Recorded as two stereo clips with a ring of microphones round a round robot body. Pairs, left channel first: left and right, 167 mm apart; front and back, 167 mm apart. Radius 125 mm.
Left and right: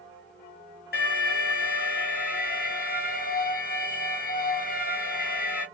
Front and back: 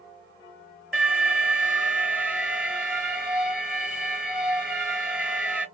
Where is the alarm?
100° left, 3 m.